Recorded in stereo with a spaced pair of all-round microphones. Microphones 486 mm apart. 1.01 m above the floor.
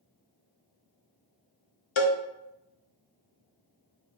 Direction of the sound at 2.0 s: 75° left (ahead or behind).